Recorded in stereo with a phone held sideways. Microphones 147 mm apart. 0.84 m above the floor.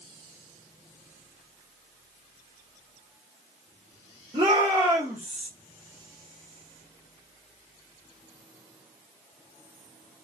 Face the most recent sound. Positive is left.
turn(degrees=-5)  # may be behind; listen again after turning